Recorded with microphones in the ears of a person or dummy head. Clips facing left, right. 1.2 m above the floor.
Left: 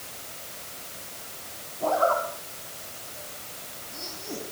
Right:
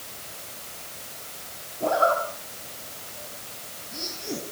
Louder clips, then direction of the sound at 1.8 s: Right 1 dB; 25° right (ahead or behind).